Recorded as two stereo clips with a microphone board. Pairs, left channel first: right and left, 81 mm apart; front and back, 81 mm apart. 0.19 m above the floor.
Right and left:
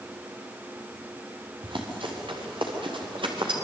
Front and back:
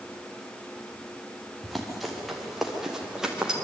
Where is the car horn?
No car horn in this recording.